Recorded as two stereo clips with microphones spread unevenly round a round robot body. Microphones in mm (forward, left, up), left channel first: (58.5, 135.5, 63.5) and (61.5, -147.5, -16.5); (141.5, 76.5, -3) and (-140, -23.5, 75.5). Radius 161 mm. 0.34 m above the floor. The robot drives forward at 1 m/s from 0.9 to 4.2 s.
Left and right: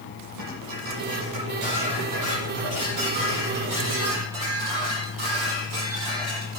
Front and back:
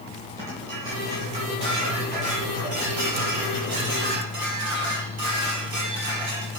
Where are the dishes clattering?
80° right, 8 m; by 6.6 s 105° right, 8 m.